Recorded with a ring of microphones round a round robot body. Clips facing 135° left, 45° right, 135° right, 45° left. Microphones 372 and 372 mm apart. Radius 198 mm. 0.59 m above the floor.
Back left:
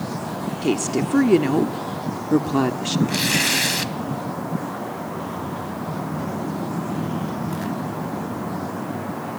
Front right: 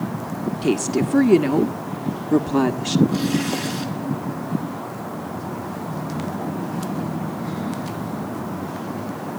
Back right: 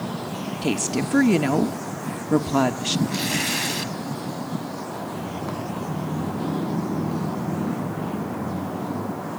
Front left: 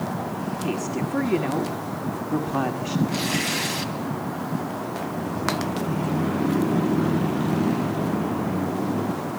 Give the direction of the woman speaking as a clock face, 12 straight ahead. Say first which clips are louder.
Front right 1 dB, back right 4 dB; 4 o'clock.